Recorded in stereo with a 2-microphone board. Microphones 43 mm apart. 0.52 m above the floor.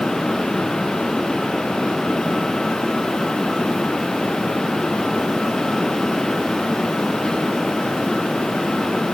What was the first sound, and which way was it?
Only background noise.